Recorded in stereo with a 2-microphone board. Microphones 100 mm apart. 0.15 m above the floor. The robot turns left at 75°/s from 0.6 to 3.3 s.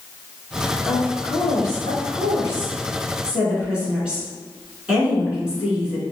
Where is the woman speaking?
170° left, 1.9 m; by 6.0 s 15° right, 1.9 m.